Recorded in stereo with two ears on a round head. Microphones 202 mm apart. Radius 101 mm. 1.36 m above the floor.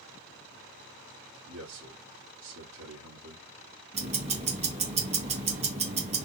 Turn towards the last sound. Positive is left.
turn(degrees=-30)  # may be behind; listen again after turning